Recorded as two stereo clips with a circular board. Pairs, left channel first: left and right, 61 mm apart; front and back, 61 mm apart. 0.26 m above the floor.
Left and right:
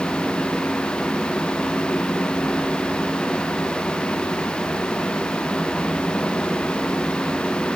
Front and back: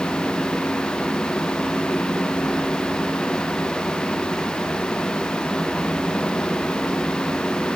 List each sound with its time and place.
Only background noise.